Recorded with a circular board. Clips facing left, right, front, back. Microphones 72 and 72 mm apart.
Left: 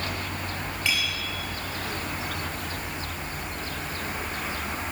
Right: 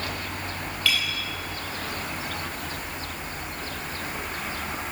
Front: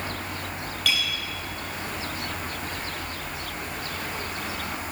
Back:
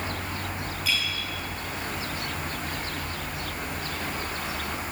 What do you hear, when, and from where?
0.8 s a clink: 20° left, 4 m